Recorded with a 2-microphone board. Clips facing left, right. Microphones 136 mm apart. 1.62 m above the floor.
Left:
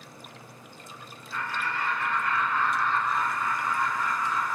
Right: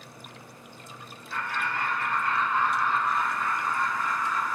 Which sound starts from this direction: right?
Laughter, at 1.3 s.